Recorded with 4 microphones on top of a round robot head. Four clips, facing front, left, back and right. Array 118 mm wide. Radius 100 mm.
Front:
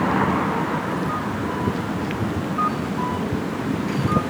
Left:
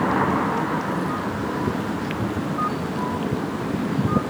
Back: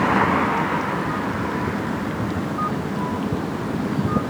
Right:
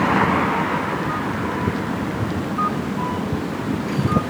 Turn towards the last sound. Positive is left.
No sound to turn to.